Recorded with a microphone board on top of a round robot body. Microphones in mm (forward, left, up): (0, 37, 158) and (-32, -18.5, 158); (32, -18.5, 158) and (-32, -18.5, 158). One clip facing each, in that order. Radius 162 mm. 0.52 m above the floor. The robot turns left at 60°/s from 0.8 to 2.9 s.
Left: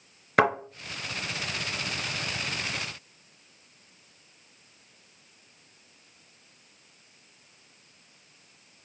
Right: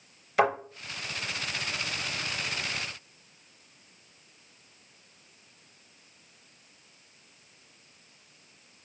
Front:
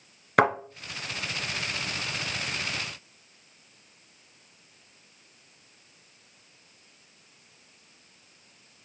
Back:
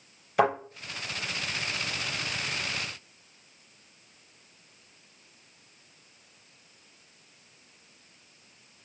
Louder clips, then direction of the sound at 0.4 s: Left 2 dB, front 2 dB; 20° left.